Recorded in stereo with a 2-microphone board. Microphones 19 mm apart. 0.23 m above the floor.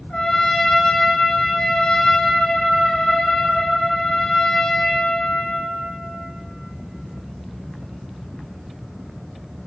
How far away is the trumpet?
About 1.0 m.